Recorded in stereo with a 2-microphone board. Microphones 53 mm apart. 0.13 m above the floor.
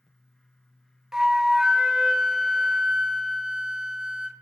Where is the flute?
10° right (ahead or behind), 0.5 m.